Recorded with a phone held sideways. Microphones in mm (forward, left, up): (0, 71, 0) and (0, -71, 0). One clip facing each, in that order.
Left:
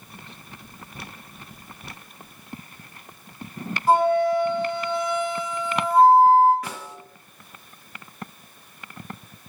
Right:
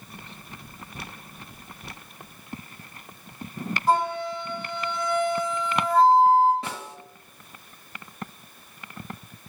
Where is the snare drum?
25° right (ahead or behind), 1.3 m.